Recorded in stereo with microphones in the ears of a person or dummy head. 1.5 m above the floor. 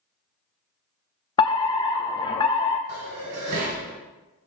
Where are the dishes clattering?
70° right (ahead or behind), 5 m.